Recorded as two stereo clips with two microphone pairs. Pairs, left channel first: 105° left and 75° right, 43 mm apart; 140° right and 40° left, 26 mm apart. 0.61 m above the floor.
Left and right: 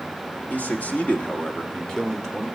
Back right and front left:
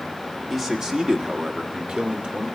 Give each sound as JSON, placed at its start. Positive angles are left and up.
{"t": 0.5, "sound": "a man speaking", "azimuth_deg": 120, "distance_m": 1.5}